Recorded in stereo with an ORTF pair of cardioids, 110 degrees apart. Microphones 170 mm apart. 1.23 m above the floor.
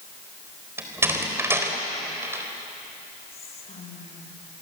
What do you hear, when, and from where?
0.8 s a door slam: 15° right, 4 m
3.3 s whispering: 40° left, 6 m